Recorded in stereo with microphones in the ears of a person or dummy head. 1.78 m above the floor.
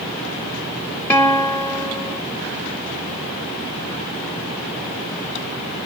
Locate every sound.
1.1 s a guitar: 10° left (ahead or behind), 0.5 m